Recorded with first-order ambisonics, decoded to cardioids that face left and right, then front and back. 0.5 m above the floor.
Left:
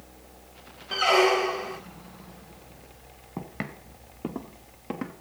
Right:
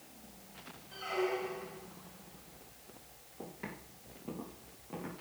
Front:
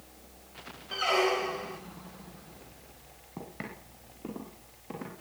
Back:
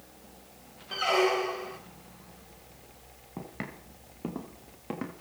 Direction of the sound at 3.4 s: 100° left.